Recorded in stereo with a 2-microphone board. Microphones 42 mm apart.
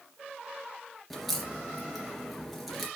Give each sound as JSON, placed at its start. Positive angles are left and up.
{"t": 1.1, "sound": "a crack", "side_deg": 0, "distance_m": 3.0}